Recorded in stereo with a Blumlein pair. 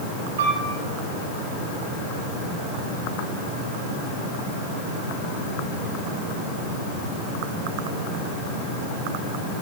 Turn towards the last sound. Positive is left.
turn(degrees=-60)